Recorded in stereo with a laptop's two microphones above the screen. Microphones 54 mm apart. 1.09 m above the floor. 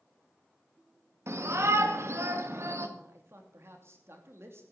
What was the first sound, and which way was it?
A shout, 60° right (ahead or behind).